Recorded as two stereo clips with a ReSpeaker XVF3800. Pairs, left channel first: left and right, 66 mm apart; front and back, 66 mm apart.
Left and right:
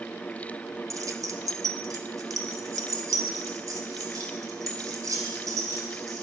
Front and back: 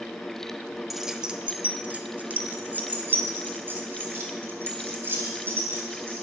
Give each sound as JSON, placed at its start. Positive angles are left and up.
{"t": 0.9, "sound": "keys jangling", "azimuth_deg": -95, "distance_m": 0.7}